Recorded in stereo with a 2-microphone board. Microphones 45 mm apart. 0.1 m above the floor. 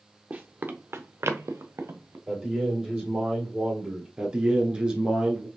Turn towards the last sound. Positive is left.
turn(degrees=-20)  # may be behind; listen again after turning